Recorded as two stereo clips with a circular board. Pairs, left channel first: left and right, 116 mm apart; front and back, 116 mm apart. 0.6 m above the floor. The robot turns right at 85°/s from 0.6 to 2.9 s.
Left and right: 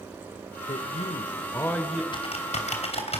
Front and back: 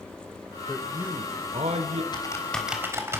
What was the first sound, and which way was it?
A man speaking, 75° left.